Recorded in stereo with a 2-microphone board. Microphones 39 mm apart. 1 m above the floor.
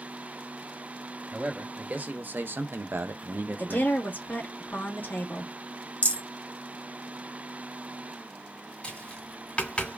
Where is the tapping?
25° left (ahead or behind), 1.9 m.